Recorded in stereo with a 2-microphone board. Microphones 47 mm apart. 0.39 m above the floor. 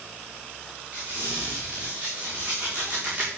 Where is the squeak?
25° right (ahead or behind), 5 m.